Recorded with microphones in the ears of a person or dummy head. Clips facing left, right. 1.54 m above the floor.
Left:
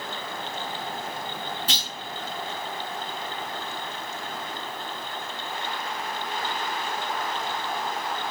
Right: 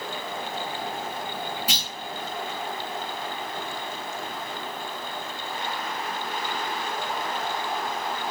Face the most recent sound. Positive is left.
turn(degrees=-15)  # may be behind; listen again after turning